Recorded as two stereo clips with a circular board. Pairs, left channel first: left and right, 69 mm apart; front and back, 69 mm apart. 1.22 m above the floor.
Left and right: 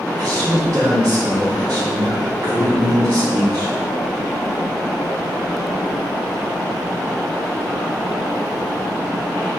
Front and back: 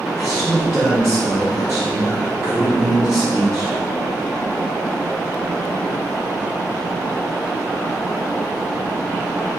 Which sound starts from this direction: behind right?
A man speaking, at 0.2 s.